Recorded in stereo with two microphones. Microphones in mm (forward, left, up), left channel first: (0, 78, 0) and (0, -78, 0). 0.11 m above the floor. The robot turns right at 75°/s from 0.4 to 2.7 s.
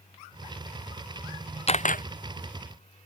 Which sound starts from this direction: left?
A camera shutter, at 1.7 s.